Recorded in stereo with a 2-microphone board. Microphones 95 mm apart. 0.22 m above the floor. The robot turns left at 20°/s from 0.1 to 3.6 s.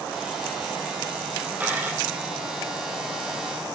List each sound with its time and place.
1.6 s a dropped coin: 20° right (ahead or behind), 2.5 m; by 2.0 s 30° right (ahead or behind), 2.5 m